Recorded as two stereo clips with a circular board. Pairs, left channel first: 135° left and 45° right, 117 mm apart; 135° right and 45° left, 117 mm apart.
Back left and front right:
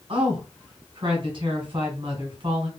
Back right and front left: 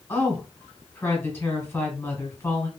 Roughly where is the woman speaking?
Right.